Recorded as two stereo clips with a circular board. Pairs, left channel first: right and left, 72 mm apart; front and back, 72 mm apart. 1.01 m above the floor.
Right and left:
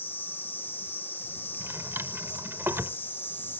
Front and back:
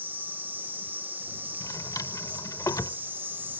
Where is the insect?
130° right.